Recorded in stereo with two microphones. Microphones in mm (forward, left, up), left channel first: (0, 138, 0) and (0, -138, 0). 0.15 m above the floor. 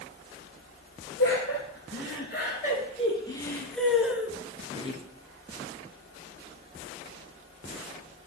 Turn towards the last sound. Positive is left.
turn(degrees=-25)  # may be behind; listen again after turning